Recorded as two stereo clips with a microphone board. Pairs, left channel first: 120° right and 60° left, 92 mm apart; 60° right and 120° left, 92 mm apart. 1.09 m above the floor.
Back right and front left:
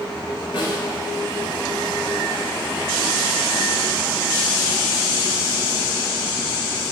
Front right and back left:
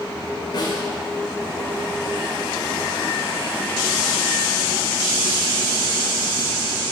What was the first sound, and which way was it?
A snare drum, 95° right.